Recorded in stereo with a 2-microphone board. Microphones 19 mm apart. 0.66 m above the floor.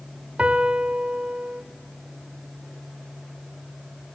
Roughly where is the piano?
Right.